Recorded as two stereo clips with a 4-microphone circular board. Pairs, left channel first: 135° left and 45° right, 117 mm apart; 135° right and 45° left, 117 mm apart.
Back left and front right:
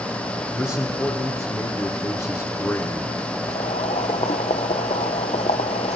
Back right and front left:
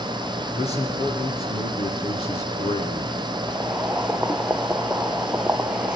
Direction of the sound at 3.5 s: 125° left.